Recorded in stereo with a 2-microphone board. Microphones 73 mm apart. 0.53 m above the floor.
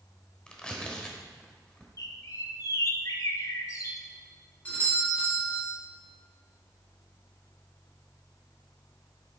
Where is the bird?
50° left (ahead or behind), 0.7 m.